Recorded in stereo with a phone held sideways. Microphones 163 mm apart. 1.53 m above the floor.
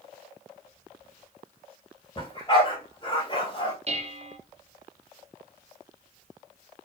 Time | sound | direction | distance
2.2 | a dog barking | 30° left (ahead or behind) | 2 m
3.9 | dishes clattering | 40° right (ahead or behind) | 0.8 m